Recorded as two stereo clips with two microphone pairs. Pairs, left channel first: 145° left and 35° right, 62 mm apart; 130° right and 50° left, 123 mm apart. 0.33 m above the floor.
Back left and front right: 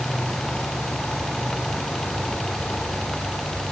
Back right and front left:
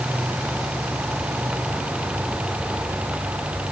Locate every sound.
Only background noise.